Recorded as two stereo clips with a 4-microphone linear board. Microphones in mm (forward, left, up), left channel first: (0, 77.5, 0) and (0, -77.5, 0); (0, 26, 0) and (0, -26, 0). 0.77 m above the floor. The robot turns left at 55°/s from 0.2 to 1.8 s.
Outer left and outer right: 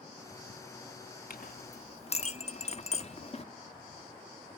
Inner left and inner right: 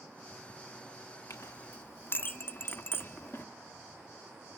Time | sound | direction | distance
1.3 | a clink | 65° left (ahead or behind) | 0.9 m